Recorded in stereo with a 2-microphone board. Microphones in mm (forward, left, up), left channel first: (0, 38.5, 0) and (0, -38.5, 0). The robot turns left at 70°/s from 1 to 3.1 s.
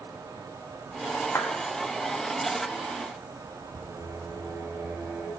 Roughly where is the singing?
Right.